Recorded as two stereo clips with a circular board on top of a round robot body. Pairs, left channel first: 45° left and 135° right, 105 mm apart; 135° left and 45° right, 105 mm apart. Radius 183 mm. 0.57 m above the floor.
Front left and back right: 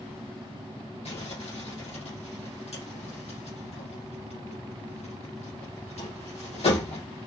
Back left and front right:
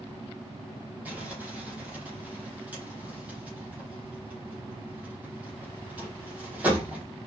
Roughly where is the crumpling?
Ahead left.